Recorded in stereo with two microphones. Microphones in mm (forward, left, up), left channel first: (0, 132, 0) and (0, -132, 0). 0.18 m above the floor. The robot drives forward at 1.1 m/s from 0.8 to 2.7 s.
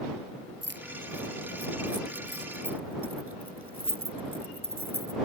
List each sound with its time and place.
0.6 s keys jangling: 45° right (ahead or behind); by 5.2 s 60° right (ahead or behind)